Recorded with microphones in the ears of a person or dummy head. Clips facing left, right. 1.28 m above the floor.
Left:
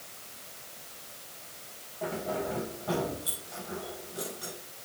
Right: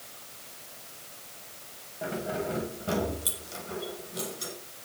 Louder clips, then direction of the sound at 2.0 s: Right 1 dB; 20° right (ahead or behind).